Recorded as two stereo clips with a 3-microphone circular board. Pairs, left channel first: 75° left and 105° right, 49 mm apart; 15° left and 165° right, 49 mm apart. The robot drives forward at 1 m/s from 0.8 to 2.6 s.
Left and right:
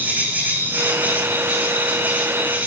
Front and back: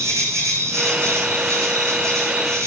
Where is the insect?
160° right, 7 m; by 2.7 s 165° right, 8.5 m.